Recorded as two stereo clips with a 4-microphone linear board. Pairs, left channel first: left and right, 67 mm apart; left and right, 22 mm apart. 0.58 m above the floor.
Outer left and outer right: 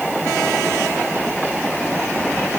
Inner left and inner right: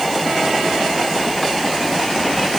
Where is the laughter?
I don't hear laughter.